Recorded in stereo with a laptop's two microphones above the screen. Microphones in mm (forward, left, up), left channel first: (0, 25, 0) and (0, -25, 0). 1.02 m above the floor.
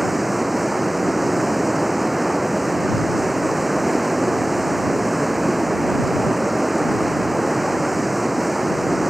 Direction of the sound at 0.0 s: 5° right (ahead or behind).